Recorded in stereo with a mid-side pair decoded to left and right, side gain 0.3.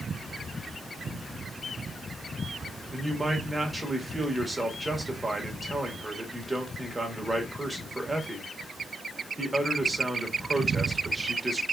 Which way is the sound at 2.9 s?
25° right.